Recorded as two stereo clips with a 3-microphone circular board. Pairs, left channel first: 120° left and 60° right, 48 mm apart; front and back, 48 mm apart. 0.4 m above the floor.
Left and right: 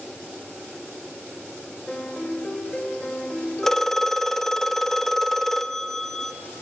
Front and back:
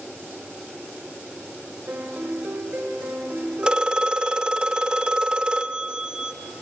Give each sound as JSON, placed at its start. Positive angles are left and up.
{"t": 1.9, "sound": "a piano", "azimuth_deg": -170, "distance_m": 1.8}
{"t": 3.6, "sound": "a phone ringing", "azimuth_deg": -170, "distance_m": 0.7}